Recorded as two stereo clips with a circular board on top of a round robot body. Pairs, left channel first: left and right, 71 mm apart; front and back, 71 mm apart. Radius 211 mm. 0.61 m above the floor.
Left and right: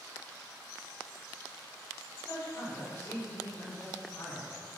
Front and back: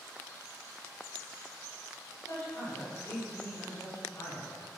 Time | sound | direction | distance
2.3 | a man speaking | 35° left | 3.5 m